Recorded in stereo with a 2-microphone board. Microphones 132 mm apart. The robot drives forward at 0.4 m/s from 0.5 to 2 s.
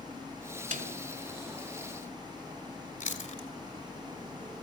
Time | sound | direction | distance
0.7 | a snare drum | 75° right (ahead or behind) | 2.5 m
3.0 | chewing | 70° left (ahead or behind) | 1.6 m